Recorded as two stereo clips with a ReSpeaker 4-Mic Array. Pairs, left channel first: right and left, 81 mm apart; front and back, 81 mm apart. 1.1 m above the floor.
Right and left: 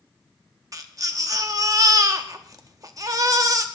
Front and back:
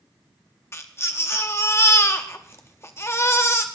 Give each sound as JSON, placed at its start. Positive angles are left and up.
{"t": 0.7, "sound": "a baby crying", "azimuth_deg": 55, "distance_m": 0.8}